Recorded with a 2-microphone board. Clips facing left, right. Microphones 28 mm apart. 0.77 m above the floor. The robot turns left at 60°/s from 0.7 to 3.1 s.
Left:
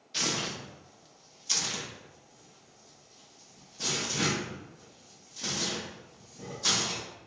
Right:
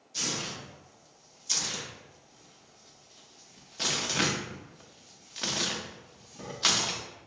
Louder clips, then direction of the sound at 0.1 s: Left 3 dB; 60° left (ahead or behind).